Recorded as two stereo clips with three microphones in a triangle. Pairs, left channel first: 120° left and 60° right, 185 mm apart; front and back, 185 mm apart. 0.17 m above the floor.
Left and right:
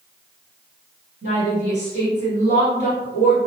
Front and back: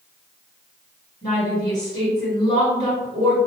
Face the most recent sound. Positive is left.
turn(degrees=-55)